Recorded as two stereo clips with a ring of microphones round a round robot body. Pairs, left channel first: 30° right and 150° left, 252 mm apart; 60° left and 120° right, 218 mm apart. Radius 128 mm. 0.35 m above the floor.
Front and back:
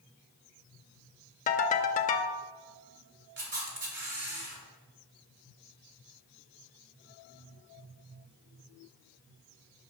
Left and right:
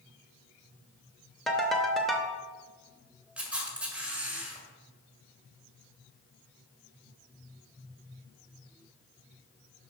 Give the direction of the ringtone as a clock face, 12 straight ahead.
1 o'clock.